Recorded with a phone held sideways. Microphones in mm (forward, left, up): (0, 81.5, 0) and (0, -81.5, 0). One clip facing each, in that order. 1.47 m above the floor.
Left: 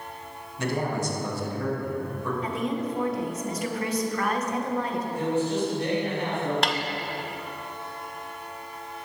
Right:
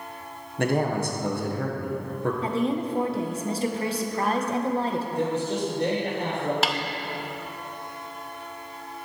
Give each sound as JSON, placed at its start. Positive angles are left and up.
{"t": 0.6, "sound": "a man speaking", "side_deg": -55, "distance_m": 1.3}
{"t": 2.4, "sound": "a woman speaking", "side_deg": -30, "distance_m": 1.0}
{"t": 5.1, "sound": "a man speaking", "side_deg": -45, "distance_m": 3.0}
{"t": 6.6, "sound": "a snare drum", "side_deg": -5, "distance_m": 0.5}